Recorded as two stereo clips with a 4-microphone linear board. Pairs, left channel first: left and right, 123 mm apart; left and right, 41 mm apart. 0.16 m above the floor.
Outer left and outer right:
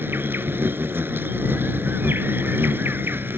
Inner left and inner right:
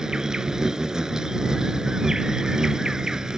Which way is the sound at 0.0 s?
15° right (ahead or behind).